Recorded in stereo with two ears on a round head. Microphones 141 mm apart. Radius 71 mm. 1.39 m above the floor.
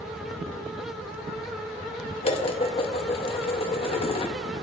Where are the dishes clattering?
40° left (ahead or behind), 1.1 m.